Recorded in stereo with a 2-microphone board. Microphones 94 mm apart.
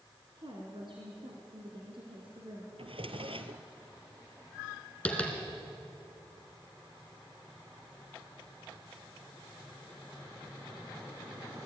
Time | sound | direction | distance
0.3 | a woman speaking | 65° right (ahead or behind) | 3.5 m
2.8 | a drawer | 80° right | 1.6 m
5.0 | tapping | 15° left (ahead or behind) | 3.5 m